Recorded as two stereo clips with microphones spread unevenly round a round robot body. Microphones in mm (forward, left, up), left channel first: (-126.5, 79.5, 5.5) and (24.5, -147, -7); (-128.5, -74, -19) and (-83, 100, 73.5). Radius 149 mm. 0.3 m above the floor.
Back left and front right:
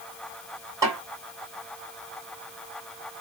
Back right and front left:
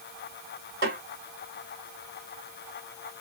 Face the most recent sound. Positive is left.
turn(degrees=15)